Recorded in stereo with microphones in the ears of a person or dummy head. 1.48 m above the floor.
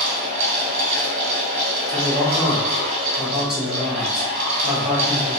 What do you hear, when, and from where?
0.0 s a fan: 40° right (ahead or behind), 1.9 m
1.9 s a man speaking: 5° right (ahead or behind), 1.7 m